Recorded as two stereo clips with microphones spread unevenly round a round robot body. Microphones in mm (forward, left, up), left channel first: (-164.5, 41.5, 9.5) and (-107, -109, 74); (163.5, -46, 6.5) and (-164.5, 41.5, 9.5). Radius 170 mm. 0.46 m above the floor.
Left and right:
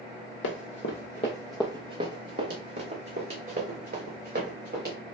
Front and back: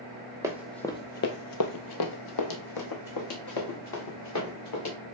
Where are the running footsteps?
85° left, 0.8 m; by 5.0 s 60° right, 2.5 m.